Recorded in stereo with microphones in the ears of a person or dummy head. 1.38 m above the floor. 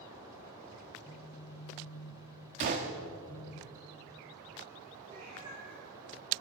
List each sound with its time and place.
1.0 s a phone buzzing: 5° right (ahead or behind), 1.6 m
2.6 s a gunshot: 35° right (ahead or behind), 1.0 m
5.0 s a cat meowing: 65° right (ahead or behind), 6 m